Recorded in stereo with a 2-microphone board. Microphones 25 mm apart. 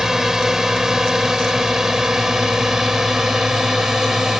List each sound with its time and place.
0.0 s a drone: 15° right (ahead or behind); by 4.4 s 20° right (ahead or behind)